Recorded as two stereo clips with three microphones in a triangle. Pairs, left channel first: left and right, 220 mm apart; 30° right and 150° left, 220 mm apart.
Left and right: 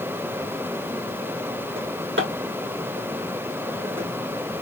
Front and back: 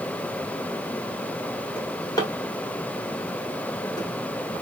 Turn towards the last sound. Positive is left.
turn(degrees=-105)